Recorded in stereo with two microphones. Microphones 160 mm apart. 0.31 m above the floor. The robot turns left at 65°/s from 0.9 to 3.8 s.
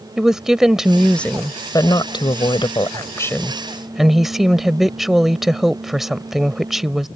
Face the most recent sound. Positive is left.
turn(degrees=-5)